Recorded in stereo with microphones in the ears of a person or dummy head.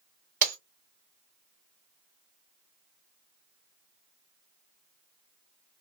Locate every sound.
0.4 s breaking glass: 45° right (ahead or behind), 1.8 m